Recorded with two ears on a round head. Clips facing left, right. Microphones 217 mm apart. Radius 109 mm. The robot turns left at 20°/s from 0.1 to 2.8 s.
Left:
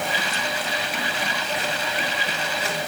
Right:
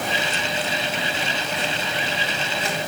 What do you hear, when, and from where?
Only background noise.